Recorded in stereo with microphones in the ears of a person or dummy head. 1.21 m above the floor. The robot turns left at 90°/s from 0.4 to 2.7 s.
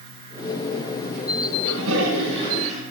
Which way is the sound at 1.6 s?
60° right.